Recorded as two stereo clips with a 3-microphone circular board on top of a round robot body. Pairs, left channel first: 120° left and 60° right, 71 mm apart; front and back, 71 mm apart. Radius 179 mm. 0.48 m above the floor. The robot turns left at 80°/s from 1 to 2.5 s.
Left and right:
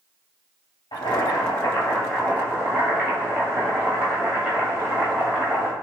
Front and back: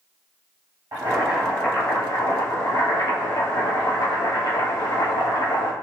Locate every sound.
0.9 s boiling: 120° left, 1.9 m; by 5.7 s straight ahead, 1.9 m